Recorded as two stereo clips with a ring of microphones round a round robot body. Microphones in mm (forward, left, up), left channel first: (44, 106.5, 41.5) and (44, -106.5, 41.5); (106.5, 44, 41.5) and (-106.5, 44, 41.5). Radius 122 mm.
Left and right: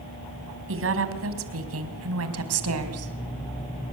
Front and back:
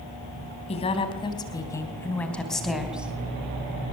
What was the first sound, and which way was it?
A woman speaking, 65° right.